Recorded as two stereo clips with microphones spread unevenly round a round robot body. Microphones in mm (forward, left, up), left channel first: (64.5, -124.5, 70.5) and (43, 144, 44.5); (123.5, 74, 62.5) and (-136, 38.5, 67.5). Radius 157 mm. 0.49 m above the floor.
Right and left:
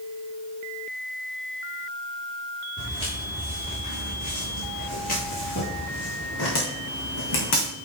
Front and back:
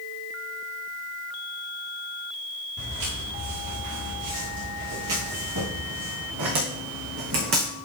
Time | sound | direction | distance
2.8 | footsteps | 160° right | 5 m